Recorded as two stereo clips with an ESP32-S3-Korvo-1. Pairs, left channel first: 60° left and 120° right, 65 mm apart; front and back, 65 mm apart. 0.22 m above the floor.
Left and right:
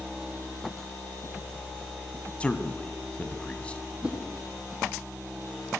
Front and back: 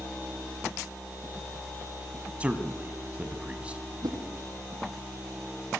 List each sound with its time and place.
2.4 s a man speaking: 120° left, 1.8 m
4.0 s a whoosh: 165° left, 6.5 m